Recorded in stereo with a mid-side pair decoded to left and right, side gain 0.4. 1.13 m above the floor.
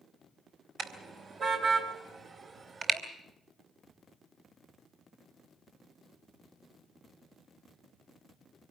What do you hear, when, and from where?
0.8 s a car horn: 65° right, 3.5 m; by 3.0 s 45° right, 3.5 m